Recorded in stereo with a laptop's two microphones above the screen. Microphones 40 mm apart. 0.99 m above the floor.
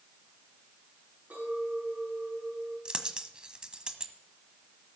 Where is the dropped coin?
20° right (ahead or behind), 1.3 m.